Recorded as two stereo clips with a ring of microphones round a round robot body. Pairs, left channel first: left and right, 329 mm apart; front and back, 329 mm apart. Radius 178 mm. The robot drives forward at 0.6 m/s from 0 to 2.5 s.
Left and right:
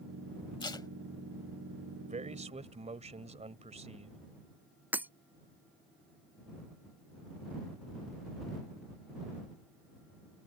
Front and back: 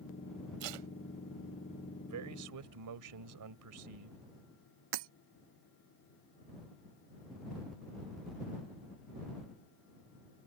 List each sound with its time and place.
0.6 s tape being pulled: 170° left
2.0 s a man speaking: 155° right; by 4.2 s 160° right
4.9 s breaking glass: 175° right